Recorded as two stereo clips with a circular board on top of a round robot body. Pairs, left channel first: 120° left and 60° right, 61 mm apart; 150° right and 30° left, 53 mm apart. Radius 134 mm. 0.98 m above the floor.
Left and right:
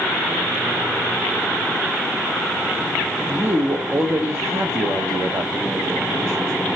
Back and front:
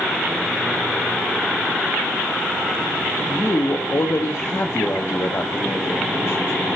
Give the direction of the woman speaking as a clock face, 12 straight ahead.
4 o'clock.